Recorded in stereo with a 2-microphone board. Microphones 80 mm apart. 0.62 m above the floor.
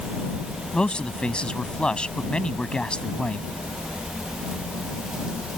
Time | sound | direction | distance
0.7 | a man speaking | 15° left (ahead or behind) | ?